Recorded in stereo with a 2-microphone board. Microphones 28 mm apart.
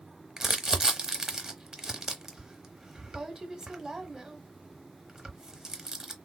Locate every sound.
0.4 s crumpling: 15° right (ahead or behind), 0.7 m